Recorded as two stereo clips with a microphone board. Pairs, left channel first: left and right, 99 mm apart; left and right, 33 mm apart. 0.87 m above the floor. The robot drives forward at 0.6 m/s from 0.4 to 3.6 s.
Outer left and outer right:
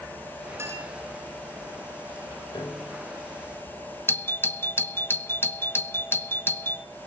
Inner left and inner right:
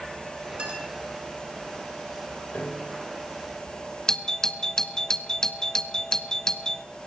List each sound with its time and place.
0.6 s a clink: 25° right (ahead or behind), 7 m; by 0.9 s 30° right (ahead or behind), 7 m
2.5 s a piano: 50° left (ahead or behind), 4 m; by 3.0 s 55° left (ahead or behind), 3.5 m
4.1 s a doorbell: 25° left (ahead or behind), 0.8 m